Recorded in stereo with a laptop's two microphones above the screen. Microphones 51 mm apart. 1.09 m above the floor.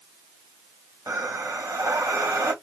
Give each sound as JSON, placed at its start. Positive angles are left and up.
{"t": 1.1, "sound": "breathing", "side_deg": -75, "distance_m": 1.6}